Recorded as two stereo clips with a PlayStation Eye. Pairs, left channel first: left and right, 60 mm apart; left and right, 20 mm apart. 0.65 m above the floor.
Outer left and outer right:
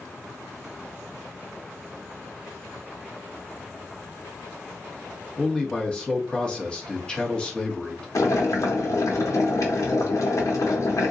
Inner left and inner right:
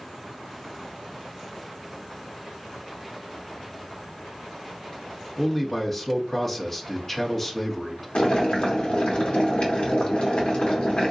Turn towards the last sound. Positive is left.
turn(degrees=65)  # may be behind; listen again after turning